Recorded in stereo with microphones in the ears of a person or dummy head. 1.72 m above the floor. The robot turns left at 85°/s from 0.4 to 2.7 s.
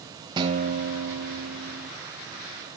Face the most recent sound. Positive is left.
turn(degrees=140)